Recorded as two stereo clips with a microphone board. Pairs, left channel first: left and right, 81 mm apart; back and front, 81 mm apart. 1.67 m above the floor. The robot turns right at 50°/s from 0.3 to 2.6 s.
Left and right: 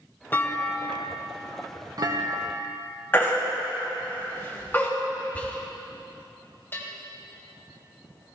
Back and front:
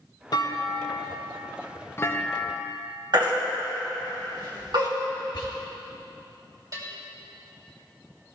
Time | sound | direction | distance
0.3 | a clunk | 150° left | 0.8 m
3.1 | a baby crying | 25° left | 1.6 m
5.3 | whispering | 160° left | 1.3 m
6.7 | a bell | 35° left | 1.7 m